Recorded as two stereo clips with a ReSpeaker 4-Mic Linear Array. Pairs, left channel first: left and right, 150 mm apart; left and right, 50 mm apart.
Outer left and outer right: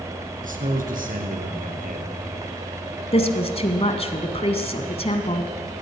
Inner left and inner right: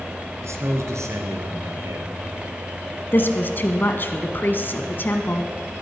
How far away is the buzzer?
No buzzer in this recording.